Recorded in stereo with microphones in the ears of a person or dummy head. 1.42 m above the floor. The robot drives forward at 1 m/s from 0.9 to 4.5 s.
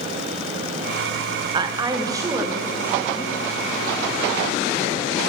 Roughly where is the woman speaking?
Right.